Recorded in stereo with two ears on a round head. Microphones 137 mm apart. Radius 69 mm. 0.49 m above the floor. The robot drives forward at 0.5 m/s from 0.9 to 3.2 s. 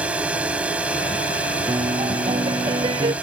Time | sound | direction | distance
0.0 | a drone | 10° right (ahead or behind) | ?
1.7 | a piano | 25° right (ahead or behind) | ?